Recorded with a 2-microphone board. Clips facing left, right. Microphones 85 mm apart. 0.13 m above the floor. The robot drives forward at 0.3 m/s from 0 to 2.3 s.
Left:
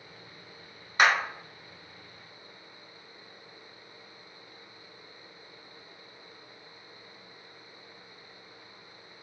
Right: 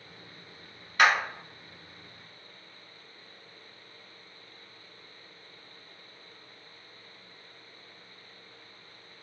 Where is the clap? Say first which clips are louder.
Even; 20° left (ahead or behind), 1.0 m.